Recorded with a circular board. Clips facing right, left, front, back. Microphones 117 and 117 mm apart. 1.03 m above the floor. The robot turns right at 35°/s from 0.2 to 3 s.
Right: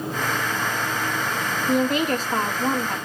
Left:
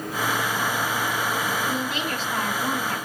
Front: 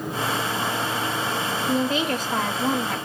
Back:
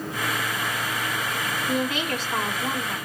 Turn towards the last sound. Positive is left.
turn(degrees=-15)